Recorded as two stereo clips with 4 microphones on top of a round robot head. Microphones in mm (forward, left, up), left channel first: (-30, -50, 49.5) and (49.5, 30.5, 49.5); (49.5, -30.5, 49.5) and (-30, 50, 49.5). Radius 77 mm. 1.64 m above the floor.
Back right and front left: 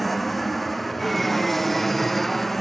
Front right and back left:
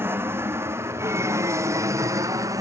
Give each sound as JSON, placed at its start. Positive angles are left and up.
{"t": 0.0, "sound": "an aircraft", "azimuth_deg": 140}